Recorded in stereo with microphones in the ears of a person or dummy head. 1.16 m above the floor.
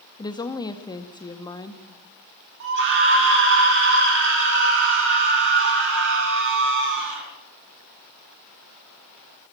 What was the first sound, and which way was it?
A woman speaking, 20° left (ahead or behind).